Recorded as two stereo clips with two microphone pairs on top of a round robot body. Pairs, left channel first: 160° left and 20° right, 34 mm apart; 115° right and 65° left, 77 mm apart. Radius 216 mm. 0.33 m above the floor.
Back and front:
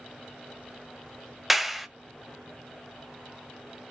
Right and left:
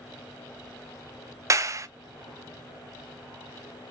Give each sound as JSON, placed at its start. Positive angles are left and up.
{"t": 1.5, "sound": "a clap", "azimuth_deg": 45, "distance_m": 0.7}